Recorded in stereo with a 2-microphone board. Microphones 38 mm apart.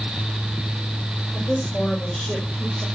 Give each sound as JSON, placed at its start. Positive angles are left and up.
{"t": 1.3, "sound": "a woman speaking", "side_deg": 35, "distance_m": 4.5}